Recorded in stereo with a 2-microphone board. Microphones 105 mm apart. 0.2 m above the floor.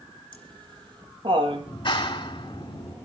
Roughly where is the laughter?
Right.